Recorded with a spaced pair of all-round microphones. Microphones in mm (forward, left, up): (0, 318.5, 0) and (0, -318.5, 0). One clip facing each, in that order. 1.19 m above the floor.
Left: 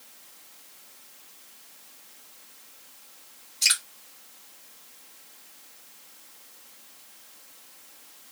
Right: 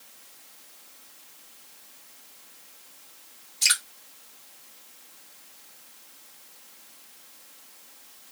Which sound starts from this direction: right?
Dripping, at 3.6 s.